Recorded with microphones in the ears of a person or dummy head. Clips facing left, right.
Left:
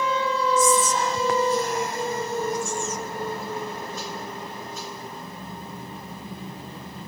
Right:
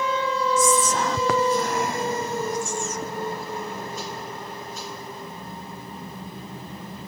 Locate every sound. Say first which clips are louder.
0.6 s whispering: even; 55° right (ahead or behind), 0.6 m